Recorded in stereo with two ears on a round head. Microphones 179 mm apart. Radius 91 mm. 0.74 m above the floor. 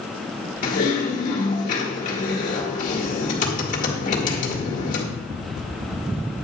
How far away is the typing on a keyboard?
About 1.9 m.